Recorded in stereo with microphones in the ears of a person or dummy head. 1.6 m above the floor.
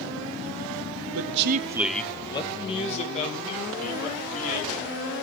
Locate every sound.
1.1 s a man speaking: 85° right, 0.7 m; by 4.9 s 40° left (ahead or behind), 4.5 m